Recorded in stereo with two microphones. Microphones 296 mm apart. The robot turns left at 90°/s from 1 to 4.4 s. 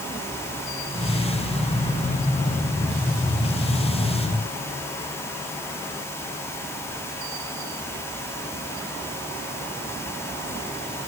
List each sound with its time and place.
Only background noise.